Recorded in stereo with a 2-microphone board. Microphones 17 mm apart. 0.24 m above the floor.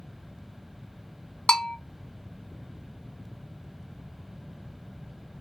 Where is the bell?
60° left (ahead or behind), 0.7 m.